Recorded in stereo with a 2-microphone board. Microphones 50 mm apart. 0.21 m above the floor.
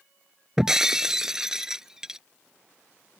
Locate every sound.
0.6 s breaking glass: 10° right (ahead or behind)